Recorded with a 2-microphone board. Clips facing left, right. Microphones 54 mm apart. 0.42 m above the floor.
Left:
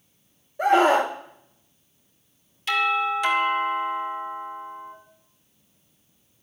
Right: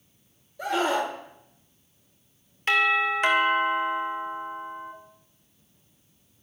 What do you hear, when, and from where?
0.6 s a scream: 35° left (ahead or behind), 0.9 m
2.7 s a doorbell: 40° right (ahead or behind), 2.5 m